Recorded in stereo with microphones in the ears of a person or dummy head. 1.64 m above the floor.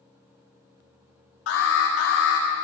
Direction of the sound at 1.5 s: 75° left (ahead or behind).